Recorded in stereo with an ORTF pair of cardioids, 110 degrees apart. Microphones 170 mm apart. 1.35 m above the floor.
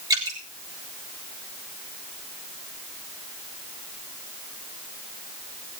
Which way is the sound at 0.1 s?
20° right.